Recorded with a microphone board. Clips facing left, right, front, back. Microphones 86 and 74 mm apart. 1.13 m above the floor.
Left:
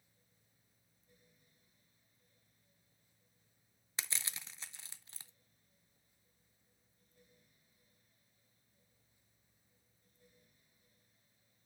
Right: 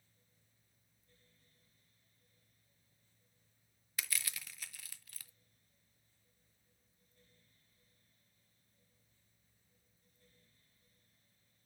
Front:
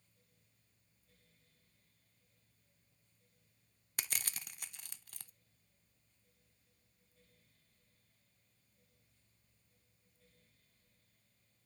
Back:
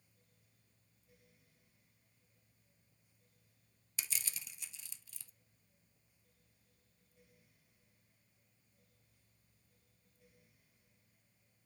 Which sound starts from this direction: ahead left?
Crushing, at 4.0 s.